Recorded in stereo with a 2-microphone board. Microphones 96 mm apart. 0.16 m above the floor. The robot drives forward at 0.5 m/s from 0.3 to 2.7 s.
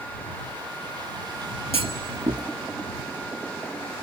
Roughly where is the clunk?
Right.